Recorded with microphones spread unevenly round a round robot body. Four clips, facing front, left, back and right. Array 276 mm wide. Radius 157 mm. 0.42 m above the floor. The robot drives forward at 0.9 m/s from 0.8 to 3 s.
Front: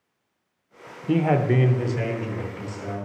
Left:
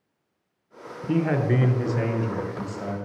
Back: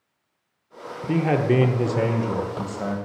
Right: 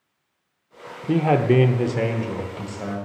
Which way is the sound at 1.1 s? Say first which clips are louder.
Right 5 dB, even; 70° right.